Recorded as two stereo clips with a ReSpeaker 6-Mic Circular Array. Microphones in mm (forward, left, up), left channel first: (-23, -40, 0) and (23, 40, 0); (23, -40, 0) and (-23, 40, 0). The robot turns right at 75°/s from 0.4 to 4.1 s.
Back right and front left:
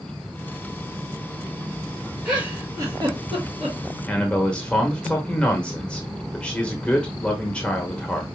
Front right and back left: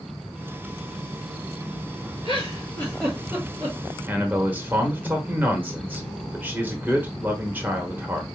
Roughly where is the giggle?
Ahead right.